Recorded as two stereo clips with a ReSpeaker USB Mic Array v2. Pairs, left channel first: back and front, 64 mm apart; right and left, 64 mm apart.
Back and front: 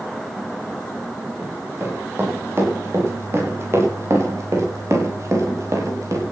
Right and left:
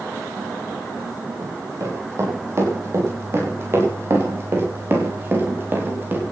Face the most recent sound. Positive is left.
turn(degrees=30)